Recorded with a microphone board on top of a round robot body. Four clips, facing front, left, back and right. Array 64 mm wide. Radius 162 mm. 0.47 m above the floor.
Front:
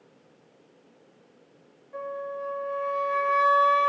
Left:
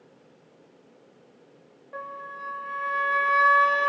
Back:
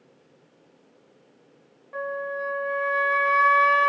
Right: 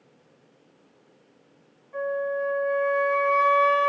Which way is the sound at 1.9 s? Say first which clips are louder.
Right 10 dB, back 4 dB; 145° left.